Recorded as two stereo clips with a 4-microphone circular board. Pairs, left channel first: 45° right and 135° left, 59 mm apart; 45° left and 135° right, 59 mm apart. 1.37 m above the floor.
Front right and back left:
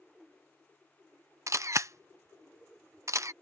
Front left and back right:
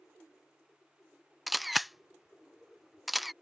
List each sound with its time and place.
1.5 s a camera shutter: 135° left